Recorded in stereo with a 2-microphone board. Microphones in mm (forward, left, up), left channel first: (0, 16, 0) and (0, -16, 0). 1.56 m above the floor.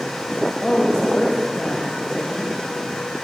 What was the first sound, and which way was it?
A woman speaking, 20° left (ahead or behind).